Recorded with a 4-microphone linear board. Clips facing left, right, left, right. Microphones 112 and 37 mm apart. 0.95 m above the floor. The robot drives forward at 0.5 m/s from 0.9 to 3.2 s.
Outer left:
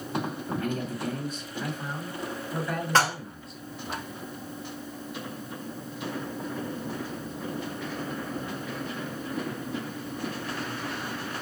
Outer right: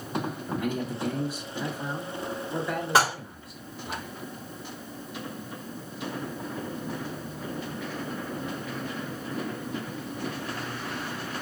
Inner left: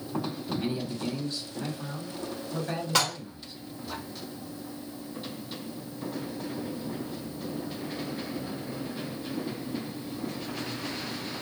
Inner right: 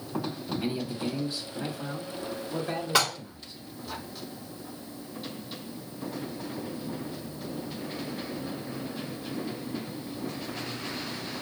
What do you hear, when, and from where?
0.5 s a man speaking: 10° right (ahead or behind), 0.7 m; by 4.0 s 5° right (ahead or behind), 1.8 m
3.0 s dishes clattering: 10° right (ahead or behind), 1.2 m